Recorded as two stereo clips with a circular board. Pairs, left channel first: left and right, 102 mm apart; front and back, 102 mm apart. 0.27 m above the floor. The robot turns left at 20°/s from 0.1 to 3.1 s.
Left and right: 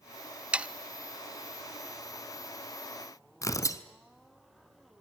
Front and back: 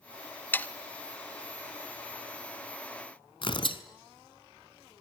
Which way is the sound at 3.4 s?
35° left.